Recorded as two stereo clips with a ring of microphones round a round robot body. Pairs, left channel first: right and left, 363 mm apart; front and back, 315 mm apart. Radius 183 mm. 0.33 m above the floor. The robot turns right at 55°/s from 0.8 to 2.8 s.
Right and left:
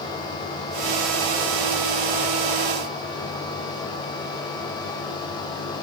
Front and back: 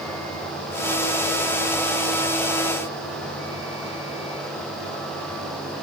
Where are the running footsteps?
I don't hear running footsteps.